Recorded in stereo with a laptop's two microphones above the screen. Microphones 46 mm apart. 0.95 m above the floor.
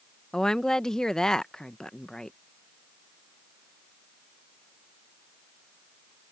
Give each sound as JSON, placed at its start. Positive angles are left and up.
{"t": 0.3, "sound": "a woman speaking", "side_deg": 15}